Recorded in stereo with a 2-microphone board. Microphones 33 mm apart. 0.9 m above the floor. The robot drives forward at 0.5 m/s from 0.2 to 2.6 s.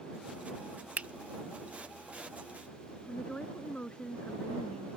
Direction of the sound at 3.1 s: 30° left (ahead or behind).